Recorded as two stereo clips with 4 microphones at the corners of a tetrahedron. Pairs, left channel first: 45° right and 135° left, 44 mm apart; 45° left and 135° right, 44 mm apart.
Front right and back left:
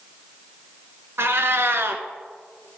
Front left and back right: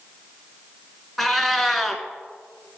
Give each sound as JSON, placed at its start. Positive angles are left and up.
{"t": 1.2, "sound": "a cat meowing", "azimuth_deg": 130, "distance_m": 0.9}